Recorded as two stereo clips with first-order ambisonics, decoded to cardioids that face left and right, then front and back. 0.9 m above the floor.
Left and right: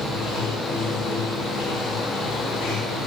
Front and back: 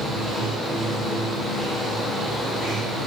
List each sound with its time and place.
0.0 s running water: 90° left, 0.8 m